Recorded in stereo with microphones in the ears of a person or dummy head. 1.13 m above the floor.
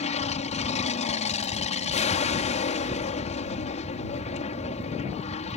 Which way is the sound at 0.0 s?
35° left (ahead or behind).